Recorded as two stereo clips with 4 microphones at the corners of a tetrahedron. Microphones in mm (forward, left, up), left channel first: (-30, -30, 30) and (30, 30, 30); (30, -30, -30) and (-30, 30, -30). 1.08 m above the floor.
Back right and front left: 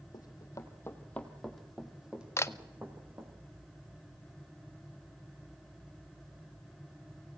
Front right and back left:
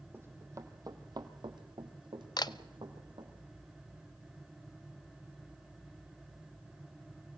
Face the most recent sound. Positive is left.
turn(degrees=-75)